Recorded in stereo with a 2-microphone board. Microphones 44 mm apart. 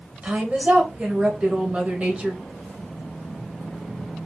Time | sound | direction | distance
0.2 | a woman speaking | 30° right (ahead or behind) | 1.2 m